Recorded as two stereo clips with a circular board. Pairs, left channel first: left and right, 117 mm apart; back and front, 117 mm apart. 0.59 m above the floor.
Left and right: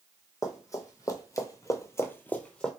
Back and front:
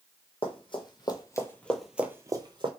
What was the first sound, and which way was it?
Running footsteps, 150° left.